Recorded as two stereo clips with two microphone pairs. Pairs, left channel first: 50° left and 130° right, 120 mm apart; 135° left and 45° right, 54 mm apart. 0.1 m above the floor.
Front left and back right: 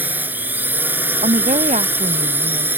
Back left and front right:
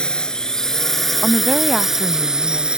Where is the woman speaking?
130° right.